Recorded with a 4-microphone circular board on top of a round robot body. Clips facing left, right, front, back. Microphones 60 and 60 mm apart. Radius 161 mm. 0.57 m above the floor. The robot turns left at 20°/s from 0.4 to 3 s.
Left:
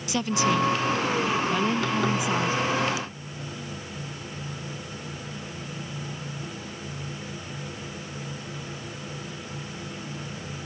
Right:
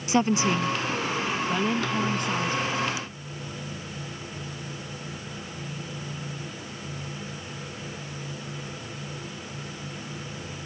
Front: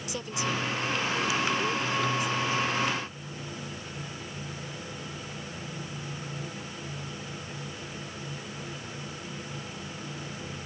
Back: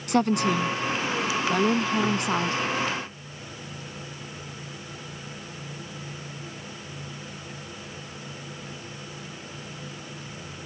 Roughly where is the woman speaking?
Behind right.